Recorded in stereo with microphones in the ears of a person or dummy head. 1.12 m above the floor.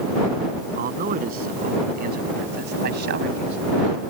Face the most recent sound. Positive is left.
turn(degrees=-75)  # may be behind; listen again after turning